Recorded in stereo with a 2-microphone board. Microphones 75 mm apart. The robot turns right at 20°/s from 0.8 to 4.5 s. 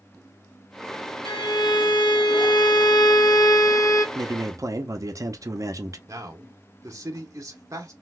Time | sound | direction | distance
1.2 | a violin | 75° left | 0.8 m
4.2 | a man speaking | 55° right (ahead or behind) | 0.7 m
6.1 | a man speaking | 45° right (ahead or behind) | 1.0 m